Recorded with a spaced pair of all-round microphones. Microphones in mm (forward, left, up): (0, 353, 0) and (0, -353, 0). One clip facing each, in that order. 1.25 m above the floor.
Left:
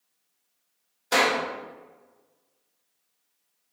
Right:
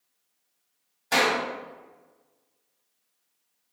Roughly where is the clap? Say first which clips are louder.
Left 1 dB; right.